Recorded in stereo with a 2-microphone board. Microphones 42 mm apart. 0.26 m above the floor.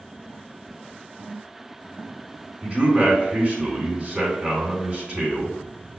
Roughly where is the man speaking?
Right.